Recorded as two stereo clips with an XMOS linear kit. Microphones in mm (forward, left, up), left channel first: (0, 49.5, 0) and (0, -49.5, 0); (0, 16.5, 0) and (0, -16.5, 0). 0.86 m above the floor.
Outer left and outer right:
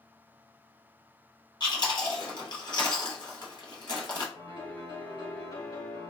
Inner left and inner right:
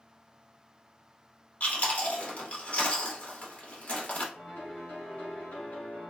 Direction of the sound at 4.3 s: 55° left (ahead or behind).